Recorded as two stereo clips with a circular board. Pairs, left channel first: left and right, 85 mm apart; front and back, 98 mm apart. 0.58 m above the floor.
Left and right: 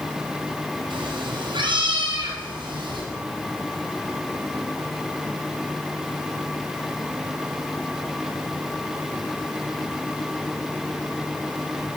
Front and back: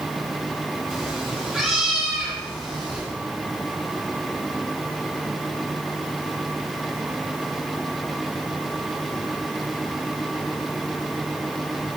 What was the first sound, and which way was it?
A cat meowing, 90° right.